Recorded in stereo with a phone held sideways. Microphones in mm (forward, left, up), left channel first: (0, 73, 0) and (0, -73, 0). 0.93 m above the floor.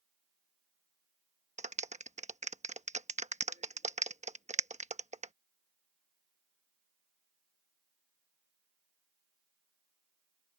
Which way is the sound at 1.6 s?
50° right (ahead or behind).